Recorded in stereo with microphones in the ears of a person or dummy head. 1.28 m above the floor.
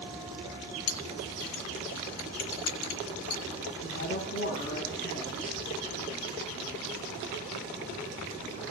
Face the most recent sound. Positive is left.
turn(degrees=45)  # may be behind; listen again after turning